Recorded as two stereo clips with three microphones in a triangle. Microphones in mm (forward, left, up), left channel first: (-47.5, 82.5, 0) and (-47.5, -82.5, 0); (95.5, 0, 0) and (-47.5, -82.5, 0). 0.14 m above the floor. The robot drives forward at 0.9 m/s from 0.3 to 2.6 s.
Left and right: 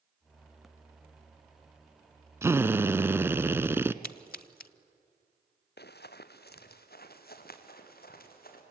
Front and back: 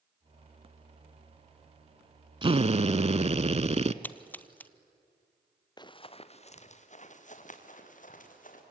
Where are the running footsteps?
95° left, 1.0 m; by 8.6 s 65° left, 4.5 m.